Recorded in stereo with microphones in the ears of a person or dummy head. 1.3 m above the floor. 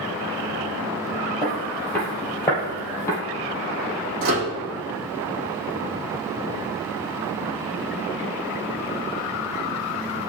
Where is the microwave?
80° right, 1.6 m.